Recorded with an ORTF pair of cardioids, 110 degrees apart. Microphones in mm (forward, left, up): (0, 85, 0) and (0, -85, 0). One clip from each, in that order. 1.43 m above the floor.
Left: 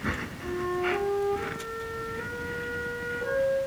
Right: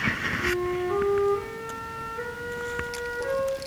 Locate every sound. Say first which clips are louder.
0.4 s a flute: right 3 dB; 50° right, 2 m